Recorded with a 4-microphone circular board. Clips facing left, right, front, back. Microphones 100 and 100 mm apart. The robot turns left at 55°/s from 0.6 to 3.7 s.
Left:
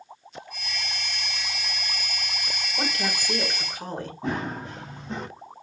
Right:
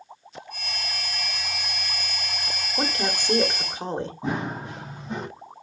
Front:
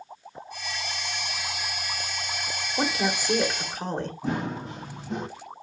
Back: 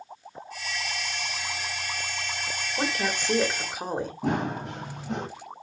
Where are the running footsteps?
165° right, 4.5 m; by 5.3 s 170° right, 5 m.